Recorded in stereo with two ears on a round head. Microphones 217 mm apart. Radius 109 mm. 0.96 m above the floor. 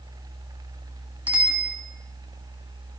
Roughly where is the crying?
No crying in this recording.